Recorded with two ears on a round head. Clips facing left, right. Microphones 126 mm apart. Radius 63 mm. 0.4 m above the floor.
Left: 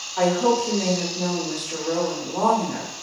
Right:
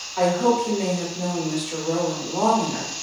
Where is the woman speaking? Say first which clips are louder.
Even; 5° right (ahead or behind), 1.4 m.